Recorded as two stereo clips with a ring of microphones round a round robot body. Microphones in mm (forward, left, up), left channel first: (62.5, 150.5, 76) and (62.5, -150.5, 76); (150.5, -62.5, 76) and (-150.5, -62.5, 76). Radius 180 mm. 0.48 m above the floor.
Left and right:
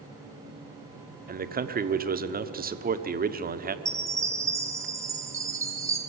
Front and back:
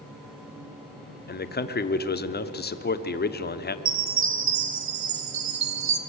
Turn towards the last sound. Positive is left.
turn(degrees=-170)